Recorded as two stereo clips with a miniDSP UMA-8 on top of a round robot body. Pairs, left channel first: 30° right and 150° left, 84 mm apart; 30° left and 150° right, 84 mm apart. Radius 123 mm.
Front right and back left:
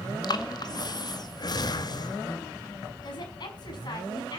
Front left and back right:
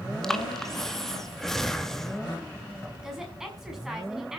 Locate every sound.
0.2 s breathing: 55° right, 2 m
3.0 s a woman speaking: 65° right, 6.5 m